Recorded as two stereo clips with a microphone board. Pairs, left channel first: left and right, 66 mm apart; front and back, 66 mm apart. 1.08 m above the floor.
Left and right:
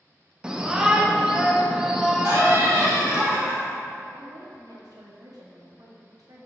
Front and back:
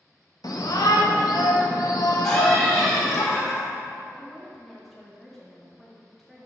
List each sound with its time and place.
0.4 s a shout: 15° right, 1.0 m
2.2 s a scream: 80° right, 2 m
4.1 s a woman speaking: 85° right, 1.6 m